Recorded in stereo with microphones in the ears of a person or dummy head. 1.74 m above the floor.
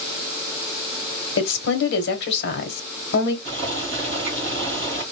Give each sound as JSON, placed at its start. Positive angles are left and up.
{"t": 1.4, "sound": "a woman speaking", "side_deg": 65, "distance_m": 1.3}
{"t": 3.5, "sound": "boiling", "side_deg": -35, "distance_m": 2.5}